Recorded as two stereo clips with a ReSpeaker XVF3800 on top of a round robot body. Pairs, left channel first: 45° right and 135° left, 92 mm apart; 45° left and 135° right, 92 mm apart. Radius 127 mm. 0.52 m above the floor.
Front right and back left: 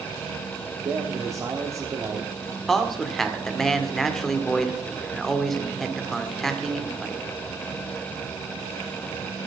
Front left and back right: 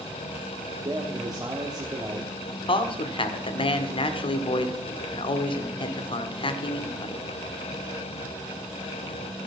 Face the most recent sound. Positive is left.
turn(degrees=45)